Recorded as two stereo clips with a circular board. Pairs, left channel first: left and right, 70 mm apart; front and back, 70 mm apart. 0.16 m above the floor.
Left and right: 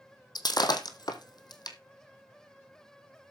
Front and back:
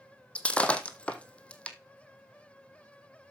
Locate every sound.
0.3 s breaking glass: 75° left, 1.3 m